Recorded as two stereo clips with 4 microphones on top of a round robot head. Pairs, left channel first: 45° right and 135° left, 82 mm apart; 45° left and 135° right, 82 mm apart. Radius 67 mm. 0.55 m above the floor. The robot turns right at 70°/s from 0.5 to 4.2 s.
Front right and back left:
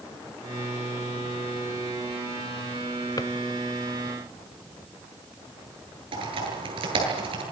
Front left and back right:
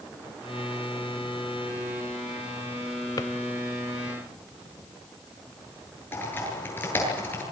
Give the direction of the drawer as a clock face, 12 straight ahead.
12 o'clock.